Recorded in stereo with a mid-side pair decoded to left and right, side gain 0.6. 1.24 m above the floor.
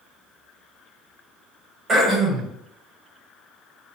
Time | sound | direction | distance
1.9 | throat clearing | 30° right | 1.3 m